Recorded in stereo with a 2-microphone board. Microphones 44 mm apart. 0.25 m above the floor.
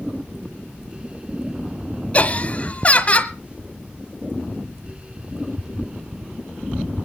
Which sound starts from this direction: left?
Laughter, at 2.1 s.